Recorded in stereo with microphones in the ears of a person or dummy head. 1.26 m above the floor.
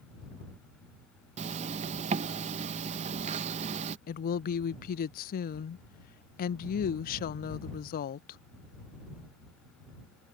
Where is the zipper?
35° right (ahead or behind).